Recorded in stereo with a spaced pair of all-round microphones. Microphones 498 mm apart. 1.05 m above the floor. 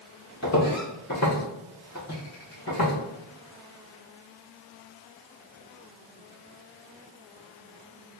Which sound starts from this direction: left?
Footsteps, at 0.4 s.